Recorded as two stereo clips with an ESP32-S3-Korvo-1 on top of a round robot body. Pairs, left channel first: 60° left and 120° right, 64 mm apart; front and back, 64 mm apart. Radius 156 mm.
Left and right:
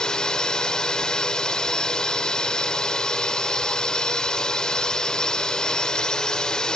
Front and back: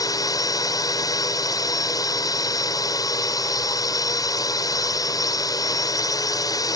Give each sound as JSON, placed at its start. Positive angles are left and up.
{"t": 0.0, "sound": "a drone", "azimuth_deg": -20}